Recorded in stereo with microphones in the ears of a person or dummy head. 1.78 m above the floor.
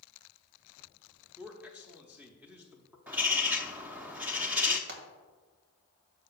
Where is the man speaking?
10° right (ahead or behind), 0.9 m.